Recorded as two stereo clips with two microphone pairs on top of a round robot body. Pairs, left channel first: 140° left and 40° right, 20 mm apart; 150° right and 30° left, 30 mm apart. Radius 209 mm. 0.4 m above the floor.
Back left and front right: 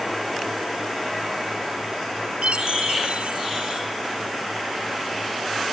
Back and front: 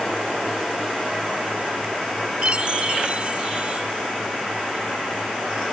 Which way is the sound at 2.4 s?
20° right.